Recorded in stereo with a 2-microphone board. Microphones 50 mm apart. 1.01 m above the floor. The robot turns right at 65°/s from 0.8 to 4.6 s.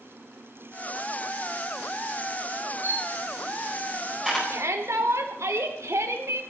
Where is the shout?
80° right, 3 m; by 6.4 s 85° right, 3 m.